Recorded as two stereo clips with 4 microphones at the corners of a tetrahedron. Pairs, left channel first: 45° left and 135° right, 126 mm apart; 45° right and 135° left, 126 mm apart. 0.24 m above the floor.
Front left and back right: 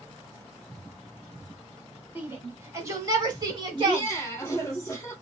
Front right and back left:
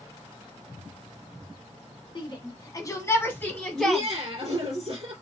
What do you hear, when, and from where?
2.1 s a shout: 65° right, 1.5 m; by 4.1 s 140° right, 1.3 m
3.7 s laughter: 105° left, 2 m